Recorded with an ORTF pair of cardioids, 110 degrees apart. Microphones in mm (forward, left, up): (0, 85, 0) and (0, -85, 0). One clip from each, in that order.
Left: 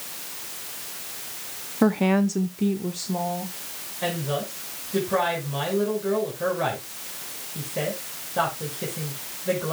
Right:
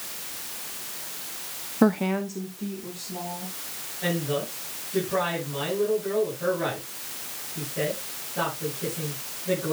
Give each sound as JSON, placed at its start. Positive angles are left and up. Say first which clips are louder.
{"t": 1.8, "sound": "a woman speaking", "louder": "left 2 dB", "azimuth_deg": -5, "distance_m": 0.6}
{"t": 4.0, "sound": "a woman speaking", "louder": "even", "azimuth_deg": 45, "distance_m": 6.0}